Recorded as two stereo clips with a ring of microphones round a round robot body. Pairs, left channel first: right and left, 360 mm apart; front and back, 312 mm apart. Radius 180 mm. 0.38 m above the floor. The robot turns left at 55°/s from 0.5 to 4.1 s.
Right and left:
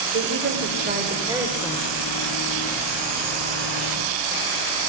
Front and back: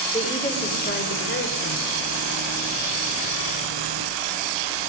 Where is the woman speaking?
60° left, 1.3 m; by 1.9 s 20° right, 1.3 m.